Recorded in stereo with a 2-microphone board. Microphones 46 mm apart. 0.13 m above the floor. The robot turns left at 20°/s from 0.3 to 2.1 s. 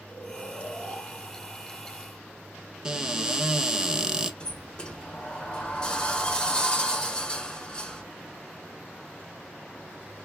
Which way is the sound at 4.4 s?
20° left (ahead or behind).